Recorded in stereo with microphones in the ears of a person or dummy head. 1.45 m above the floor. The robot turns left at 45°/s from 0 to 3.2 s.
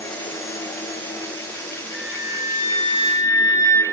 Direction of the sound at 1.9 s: 75° left.